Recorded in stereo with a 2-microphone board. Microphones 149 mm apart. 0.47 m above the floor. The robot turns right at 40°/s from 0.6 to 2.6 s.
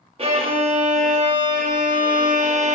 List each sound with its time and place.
0.2 s a violin: 140° right, 0.5 m; by 2.8 s 60° right, 0.5 m